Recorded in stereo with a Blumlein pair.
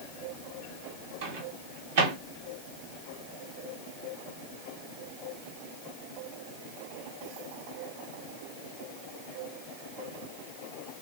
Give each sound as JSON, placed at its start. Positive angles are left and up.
{"t": 1.2, "sound": "a microwave", "azimuth_deg": -55, "distance_m": 1.0}